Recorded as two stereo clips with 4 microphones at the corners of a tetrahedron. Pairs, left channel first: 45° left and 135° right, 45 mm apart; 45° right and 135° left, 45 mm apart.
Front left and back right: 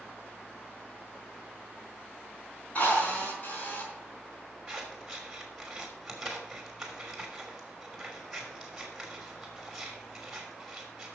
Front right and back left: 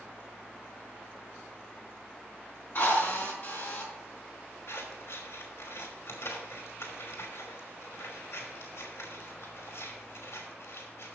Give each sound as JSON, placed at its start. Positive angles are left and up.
{"t": 2.8, "sound": "a drill", "azimuth_deg": -5, "distance_m": 4.5}
{"t": 4.7, "sound": "scissors", "azimuth_deg": -50, "distance_m": 3.0}